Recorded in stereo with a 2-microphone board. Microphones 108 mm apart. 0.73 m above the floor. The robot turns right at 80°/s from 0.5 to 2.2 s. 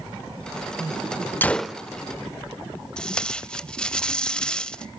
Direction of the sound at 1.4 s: 160° left.